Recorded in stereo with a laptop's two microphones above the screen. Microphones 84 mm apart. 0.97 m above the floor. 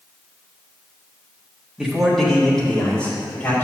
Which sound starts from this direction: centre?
A man speaking, at 1.8 s.